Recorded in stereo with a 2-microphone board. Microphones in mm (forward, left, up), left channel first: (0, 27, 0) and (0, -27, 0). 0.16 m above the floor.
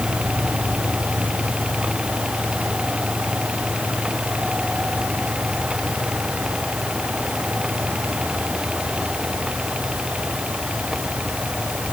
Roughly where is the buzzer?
No buzzer in this recording.